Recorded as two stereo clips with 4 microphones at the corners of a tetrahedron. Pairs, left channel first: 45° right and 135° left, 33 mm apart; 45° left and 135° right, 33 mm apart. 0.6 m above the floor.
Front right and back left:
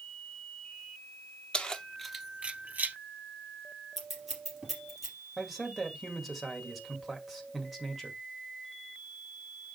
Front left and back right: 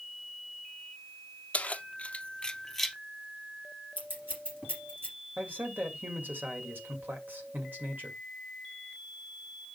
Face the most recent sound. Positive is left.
turn(degrees=-135)